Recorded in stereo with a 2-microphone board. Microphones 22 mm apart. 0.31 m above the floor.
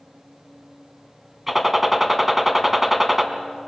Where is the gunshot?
10° right (ahead or behind), 1.6 m.